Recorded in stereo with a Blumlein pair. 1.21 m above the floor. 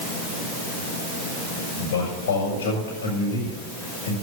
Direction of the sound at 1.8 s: 55° left.